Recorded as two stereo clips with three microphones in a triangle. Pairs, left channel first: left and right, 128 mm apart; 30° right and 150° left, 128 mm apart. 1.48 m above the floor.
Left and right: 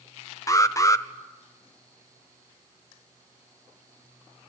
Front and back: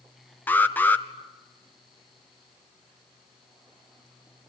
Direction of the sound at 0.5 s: 35° left.